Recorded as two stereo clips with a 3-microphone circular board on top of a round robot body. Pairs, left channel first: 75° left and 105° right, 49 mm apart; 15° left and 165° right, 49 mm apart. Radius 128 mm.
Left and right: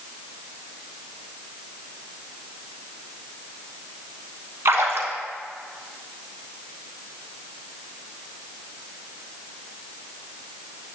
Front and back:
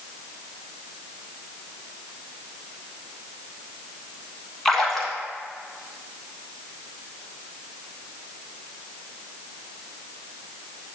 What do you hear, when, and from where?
4.7 s a splash: 70° right, 1.0 m